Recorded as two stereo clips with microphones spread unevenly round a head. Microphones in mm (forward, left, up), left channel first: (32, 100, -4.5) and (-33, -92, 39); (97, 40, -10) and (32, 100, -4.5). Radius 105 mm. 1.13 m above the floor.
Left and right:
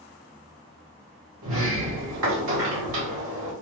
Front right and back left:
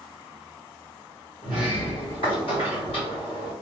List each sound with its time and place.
1.4 s a sliding door: 75° right, 1.0 m